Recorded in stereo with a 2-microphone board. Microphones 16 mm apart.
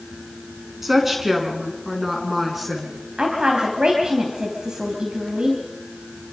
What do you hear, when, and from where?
0.8 s a woman speaking: 20° right (ahead or behind), 5 m; by 2.9 s 15° right (ahead or behind), 6 m
3.2 s a woman speaking: 70° right (ahead or behind), 3 m